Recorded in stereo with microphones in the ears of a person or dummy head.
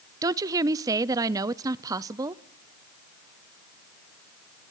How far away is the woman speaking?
About 0.6 m.